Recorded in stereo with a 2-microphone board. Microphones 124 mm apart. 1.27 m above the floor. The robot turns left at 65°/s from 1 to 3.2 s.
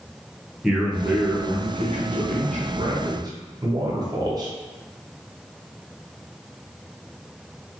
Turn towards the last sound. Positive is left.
turn(degrees=-145)